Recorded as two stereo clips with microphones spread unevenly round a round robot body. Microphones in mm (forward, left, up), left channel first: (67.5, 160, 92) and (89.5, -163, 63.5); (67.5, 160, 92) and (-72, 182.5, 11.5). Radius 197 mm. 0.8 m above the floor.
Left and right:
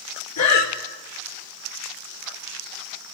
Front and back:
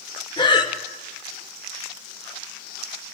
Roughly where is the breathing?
Ahead left.